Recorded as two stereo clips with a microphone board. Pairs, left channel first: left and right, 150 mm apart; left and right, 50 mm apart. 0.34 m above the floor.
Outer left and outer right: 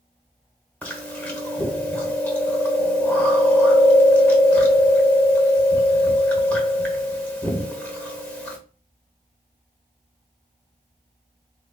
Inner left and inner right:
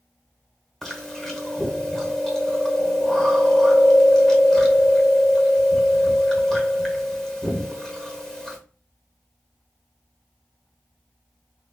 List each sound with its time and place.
0.8 s chewing: 10° left (ahead or behind), 1.0 m